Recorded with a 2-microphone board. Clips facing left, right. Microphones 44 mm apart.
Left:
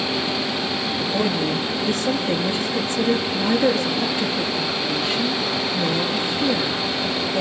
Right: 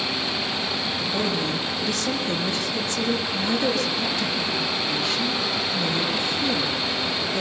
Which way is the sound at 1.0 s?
20° left (ahead or behind).